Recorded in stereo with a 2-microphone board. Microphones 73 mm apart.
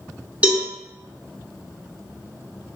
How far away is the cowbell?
About 0.8 m.